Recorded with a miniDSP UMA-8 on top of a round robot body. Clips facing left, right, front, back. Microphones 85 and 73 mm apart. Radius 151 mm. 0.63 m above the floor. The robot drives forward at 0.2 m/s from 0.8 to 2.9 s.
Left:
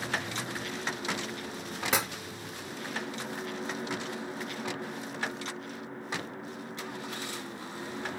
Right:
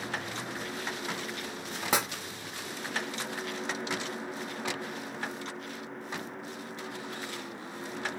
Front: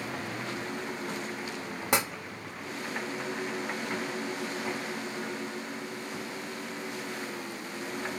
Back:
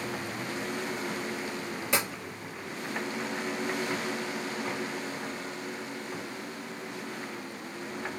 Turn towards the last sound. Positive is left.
turn(degrees=-45)